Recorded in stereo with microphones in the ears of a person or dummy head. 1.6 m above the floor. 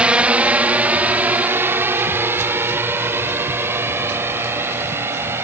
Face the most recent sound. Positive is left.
turn(degrees=-15)  # may be behind; listen again after turning